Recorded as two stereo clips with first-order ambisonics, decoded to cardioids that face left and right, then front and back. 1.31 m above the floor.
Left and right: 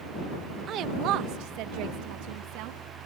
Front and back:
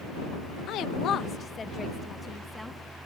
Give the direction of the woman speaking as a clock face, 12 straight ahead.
1 o'clock.